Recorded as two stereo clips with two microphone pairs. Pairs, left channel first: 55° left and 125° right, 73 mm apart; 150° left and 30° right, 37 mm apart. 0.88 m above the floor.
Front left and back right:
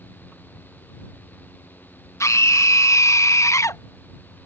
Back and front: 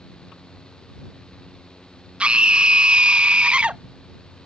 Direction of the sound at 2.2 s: 20° left.